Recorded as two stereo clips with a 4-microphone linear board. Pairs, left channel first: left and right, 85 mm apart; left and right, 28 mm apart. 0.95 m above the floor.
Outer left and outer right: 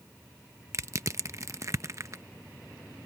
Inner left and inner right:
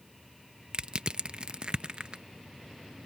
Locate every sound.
0.7 s crushing: 35° right (ahead or behind)